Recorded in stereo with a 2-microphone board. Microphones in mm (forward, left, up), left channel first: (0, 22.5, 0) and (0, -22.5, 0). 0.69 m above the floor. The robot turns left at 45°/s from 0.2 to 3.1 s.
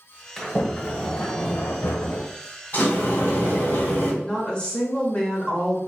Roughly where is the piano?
No piano in this recording.